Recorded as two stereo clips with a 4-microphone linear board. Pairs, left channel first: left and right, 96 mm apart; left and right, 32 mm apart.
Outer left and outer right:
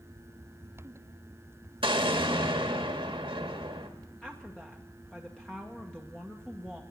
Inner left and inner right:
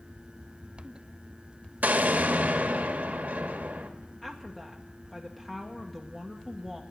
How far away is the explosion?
About 1.5 m.